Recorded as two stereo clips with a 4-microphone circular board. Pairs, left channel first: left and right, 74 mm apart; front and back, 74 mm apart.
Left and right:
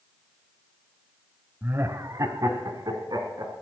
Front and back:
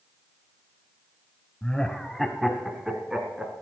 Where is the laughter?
60° right, 1.1 m; by 3.5 s 100° right, 2.5 m.